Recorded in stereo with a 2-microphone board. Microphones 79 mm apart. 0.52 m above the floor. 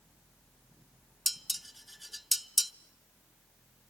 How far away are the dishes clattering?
About 0.5 m.